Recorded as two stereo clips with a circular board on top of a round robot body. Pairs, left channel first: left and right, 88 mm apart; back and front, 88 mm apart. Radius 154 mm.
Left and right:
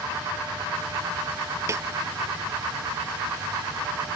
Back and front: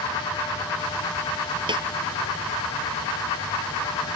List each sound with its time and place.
1.7 s a snare drum: 30° right